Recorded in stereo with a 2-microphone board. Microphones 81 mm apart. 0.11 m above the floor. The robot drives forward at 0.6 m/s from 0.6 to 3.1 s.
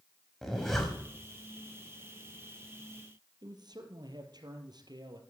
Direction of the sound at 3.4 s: 60° right (ahead or behind).